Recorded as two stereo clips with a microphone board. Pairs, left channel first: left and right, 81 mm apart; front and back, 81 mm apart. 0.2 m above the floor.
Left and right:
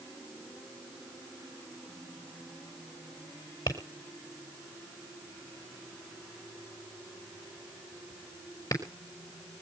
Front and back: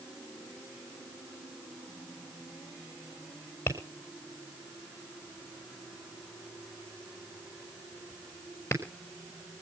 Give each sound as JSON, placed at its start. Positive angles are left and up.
{"t": 3.7, "sound": "tapping", "azimuth_deg": 60, "distance_m": 4.5}